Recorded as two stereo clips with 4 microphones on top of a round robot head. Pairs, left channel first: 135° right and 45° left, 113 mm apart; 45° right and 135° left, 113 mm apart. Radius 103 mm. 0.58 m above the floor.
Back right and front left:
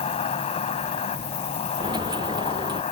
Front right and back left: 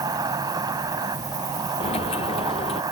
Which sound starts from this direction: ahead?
A dropped coin, at 1.8 s.